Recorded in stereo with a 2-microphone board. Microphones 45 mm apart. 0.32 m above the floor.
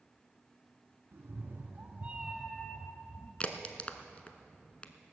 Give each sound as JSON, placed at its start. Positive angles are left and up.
{"t": 1.1, "sound": "a cat meowing", "side_deg": -60, "distance_m": 2.0}
{"t": 3.4, "sound": "a crack", "side_deg": 30, "distance_m": 0.8}